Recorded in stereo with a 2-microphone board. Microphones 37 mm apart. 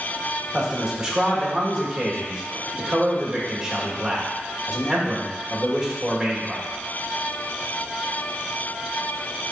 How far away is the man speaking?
About 1.3 m.